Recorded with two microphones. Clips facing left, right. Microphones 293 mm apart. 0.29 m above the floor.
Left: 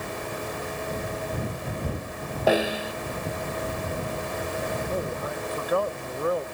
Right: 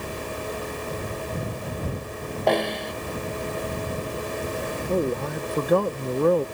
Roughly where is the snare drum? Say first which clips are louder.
Left 1 dB; centre.